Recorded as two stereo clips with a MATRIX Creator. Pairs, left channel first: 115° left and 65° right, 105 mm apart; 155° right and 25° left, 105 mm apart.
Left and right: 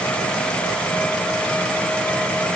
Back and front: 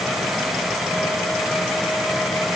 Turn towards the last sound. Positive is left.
No sound to turn to.